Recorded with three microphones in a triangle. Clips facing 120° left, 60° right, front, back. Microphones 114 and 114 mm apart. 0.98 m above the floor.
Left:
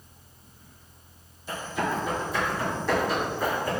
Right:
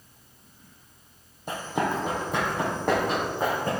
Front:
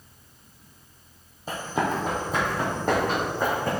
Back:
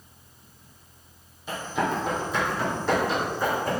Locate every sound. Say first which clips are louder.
1.5 s running footsteps: right 2 dB, front 1 dB; 45° right, 2 m; by 3.8 s 30° right, 3 m